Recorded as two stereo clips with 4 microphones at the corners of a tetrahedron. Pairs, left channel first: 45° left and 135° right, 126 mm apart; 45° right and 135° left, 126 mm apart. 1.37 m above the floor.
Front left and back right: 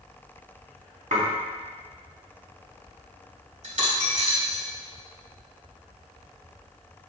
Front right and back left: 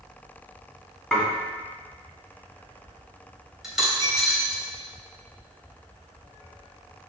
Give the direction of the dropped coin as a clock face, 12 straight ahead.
5 o'clock.